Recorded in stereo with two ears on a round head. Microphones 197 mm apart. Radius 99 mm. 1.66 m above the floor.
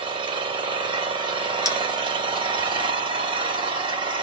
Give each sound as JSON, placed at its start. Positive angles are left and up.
{"t": 0.0, "sound": "an engine running", "side_deg": -25, "distance_m": 1.8}
{"t": 1.6, "sound": "a bell", "side_deg": 15, "distance_m": 1.9}